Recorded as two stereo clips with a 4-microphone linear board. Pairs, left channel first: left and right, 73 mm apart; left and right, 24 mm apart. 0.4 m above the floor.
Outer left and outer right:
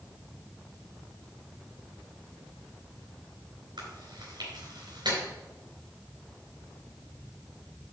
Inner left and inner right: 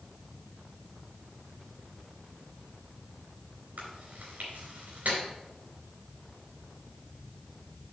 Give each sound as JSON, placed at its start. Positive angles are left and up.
{"t": 3.8, "sound": "chewing", "side_deg": -70, "distance_m": 3.5}